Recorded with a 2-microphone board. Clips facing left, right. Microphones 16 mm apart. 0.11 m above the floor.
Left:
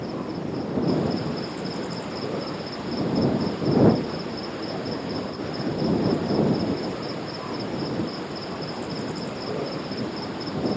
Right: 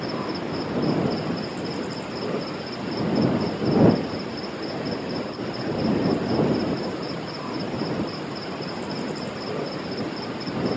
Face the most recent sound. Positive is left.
turn(degrees=-70)  # may be behind; listen again after turning